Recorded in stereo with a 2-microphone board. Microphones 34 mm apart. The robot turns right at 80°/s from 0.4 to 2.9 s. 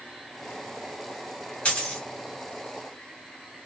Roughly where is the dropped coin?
Left.